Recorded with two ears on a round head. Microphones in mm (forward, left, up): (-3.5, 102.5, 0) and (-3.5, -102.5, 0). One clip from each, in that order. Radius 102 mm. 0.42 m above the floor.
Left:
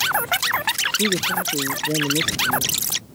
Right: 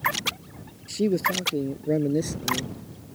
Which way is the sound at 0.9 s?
45° right (ahead or behind).